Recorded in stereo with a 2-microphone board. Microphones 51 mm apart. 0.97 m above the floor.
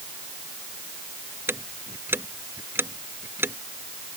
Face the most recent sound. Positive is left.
turn(degrees=-45)  # may be behind; listen again after turning